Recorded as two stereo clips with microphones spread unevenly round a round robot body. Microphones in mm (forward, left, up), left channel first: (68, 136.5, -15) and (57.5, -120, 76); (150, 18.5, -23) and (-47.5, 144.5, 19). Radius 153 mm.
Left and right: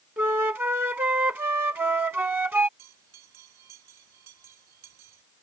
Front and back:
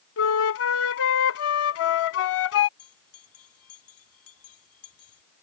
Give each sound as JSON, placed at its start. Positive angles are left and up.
{"t": 0.2, "sound": "a flute", "azimuth_deg": -25}
{"t": 2.8, "sound": "a bell", "azimuth_deg": -80}